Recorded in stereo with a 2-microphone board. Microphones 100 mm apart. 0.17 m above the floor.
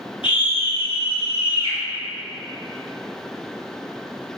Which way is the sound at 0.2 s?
60° left (ahead or behind).